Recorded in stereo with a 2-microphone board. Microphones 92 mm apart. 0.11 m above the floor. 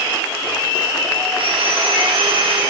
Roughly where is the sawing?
Right.